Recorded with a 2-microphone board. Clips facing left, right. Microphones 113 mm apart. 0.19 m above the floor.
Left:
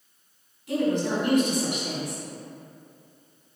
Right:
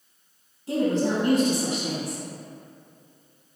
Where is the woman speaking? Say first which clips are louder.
Right 1 dB; 25° right (ahead or behind), 1.6 m.